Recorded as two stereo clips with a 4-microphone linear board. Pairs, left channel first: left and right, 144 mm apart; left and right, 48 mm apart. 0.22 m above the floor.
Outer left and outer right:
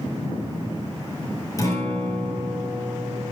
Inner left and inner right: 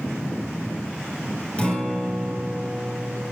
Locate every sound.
1.6 s a guitar: 25° left (ahead or behind), 2.5 m